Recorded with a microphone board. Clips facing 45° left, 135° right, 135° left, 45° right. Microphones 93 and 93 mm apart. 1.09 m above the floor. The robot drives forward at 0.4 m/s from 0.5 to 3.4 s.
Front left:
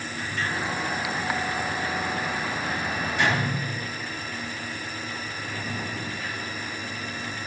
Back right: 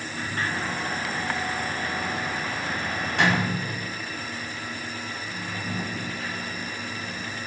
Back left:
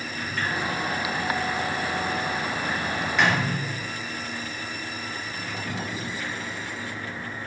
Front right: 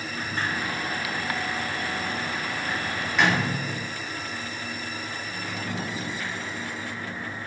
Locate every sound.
0.1 s a sliding door: 95° right, 1.3 m; by 7.3 s 135° right, 1.8 m